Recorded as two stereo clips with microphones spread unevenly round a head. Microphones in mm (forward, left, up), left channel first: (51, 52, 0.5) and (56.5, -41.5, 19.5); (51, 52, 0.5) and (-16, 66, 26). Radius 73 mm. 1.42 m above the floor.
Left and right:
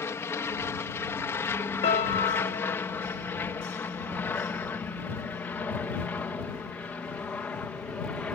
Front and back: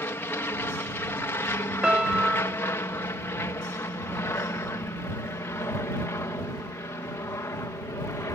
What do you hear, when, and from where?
0.0 s an aircraft: 35° left; by 8.4 s 20° left
1.8 s a piano: 105° left